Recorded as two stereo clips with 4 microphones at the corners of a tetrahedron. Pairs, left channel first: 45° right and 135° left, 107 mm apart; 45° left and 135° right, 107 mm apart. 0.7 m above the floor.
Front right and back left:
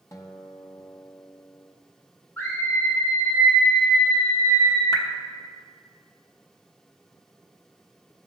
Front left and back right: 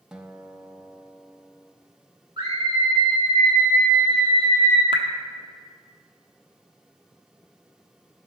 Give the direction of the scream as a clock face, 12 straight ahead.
4 o'clock.